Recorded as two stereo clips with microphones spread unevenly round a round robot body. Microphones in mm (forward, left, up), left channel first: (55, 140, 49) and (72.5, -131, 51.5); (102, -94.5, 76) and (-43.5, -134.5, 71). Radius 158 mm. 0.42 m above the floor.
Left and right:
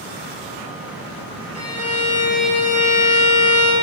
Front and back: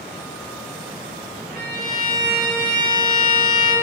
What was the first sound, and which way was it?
A violin, 110° left.